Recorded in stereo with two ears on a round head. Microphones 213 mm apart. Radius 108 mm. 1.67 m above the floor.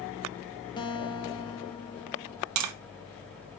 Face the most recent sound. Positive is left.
turn(degrees=-80)